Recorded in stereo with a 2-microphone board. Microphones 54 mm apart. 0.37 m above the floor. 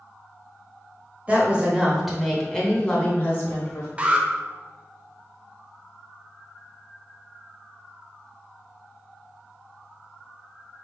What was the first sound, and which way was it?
A woman speaking, 25° right (ahead or behind).